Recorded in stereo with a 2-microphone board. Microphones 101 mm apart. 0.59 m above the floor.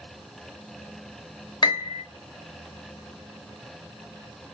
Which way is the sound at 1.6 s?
45° left (ahead or behind).